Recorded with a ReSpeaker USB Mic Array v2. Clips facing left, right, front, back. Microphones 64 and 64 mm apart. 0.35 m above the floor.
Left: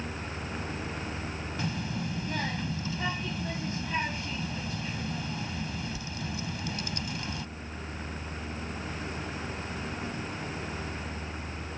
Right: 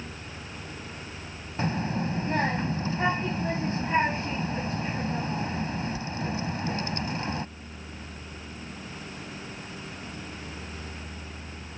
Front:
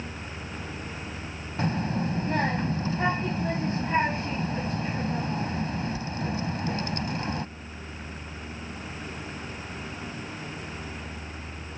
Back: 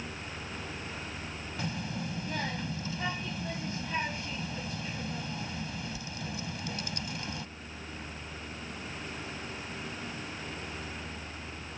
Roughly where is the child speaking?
Ahead right.